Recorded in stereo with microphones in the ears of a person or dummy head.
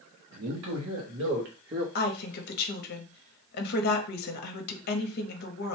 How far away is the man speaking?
About 1.6 m.